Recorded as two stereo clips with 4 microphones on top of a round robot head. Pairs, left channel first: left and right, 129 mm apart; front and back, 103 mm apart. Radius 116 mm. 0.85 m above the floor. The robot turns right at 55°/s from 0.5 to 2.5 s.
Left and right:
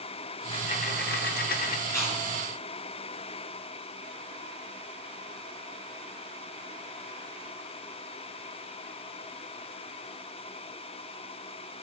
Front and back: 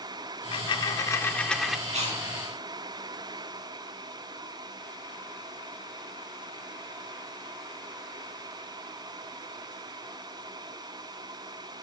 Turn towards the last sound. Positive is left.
turn(degrees=-170)